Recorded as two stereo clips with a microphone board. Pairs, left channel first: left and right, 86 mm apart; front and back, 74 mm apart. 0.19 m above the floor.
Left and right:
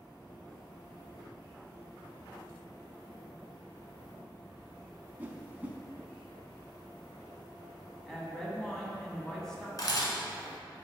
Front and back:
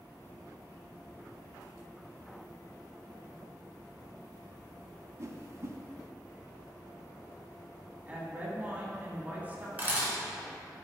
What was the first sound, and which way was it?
A whoosh, 155° right.